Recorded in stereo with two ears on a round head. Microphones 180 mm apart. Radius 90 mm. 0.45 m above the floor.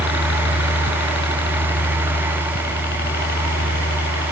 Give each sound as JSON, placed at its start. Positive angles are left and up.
{"t": 0.0, "sound": "a helicopter", "side_deg": 55}